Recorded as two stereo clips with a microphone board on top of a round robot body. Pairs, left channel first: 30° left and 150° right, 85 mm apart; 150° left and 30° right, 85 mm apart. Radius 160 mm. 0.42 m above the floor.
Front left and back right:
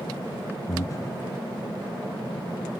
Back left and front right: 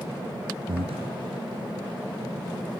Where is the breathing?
20° right, 1.0 m.